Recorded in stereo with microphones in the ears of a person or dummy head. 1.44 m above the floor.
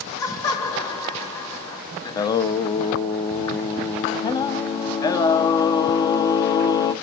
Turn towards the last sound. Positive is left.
turn(degrees=25)  # may be behind; listen again after turning